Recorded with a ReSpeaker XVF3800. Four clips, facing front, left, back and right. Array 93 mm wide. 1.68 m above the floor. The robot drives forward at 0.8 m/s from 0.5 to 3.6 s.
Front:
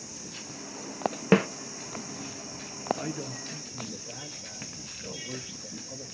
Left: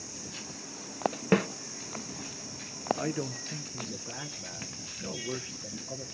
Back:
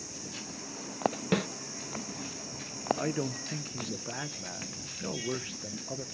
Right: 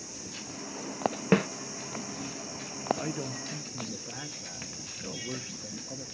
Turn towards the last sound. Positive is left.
turn(degrees=170)